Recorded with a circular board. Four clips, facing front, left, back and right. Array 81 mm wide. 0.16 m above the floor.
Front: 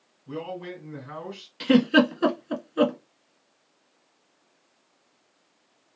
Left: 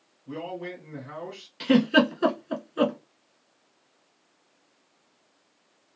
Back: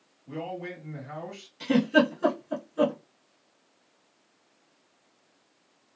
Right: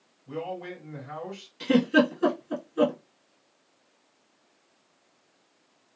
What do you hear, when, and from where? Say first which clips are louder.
0.3 s a man speaking: even, front 1 dB; 20° left, 1.8 m
1.6 s a giggle: left 1 dB, front 3 dB; 30° left, 0.6 m